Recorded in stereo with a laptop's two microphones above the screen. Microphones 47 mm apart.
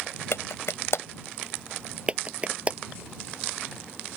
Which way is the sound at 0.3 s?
65° left (ahead or behind).